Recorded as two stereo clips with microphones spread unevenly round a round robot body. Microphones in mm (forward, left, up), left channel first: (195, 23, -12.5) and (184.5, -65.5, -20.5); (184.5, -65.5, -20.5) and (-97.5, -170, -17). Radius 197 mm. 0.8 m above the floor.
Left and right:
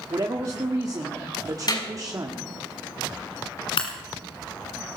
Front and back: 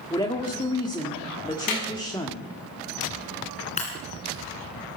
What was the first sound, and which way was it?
A woman speaking, 55° right.